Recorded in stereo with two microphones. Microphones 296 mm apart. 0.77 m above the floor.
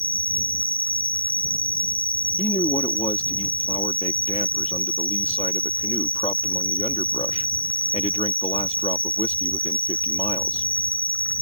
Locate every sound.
0.0 s an insect: 5° left (ahead or behind)
2.4 s a man speaking: 20° left (ahead or behind)